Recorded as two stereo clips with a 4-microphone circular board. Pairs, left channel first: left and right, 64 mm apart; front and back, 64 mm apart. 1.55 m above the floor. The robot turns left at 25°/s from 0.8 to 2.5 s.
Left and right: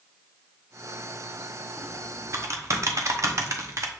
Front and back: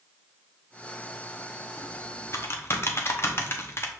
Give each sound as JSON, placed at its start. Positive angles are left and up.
{"t": 1.8, "sound": "typing on a keyboard", "azimuth_deg": -30, "distance_m": 0.7}